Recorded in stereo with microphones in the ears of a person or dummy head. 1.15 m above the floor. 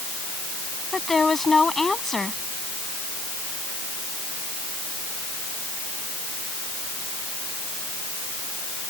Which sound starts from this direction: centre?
A woman speaking, at 0.9 s.